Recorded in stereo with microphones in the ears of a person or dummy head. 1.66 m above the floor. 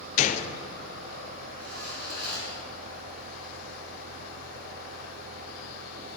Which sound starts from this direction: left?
A gunshot, at 0.2 s.